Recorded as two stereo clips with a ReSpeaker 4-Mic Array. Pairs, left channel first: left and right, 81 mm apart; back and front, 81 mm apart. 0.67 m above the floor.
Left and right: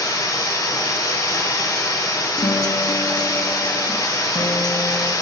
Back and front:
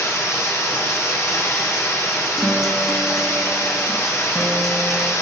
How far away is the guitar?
About 0.6 m.